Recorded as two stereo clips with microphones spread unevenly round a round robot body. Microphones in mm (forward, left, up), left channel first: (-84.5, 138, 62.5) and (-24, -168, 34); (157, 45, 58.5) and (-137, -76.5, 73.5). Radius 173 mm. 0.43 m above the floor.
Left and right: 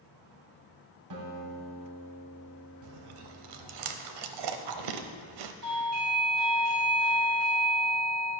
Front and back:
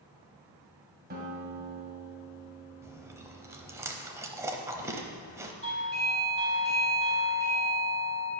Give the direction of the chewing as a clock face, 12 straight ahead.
3 o'clock.